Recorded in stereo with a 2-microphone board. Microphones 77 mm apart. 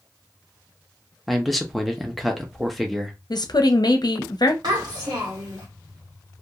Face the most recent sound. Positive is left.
turn(degrees=-65)  # may be behind; listen again after turning